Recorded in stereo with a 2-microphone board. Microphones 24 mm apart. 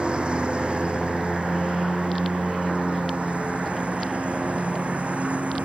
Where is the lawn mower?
45° right (ahead or behind); by 5.7 s 70° right (ahead or behind).